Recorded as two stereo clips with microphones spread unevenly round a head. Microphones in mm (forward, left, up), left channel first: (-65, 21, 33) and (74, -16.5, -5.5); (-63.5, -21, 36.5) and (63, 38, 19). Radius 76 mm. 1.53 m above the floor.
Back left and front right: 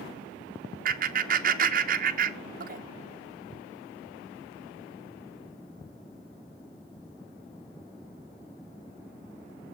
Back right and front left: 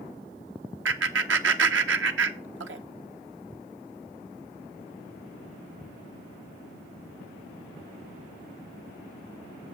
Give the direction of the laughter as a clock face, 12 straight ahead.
11 o'clock.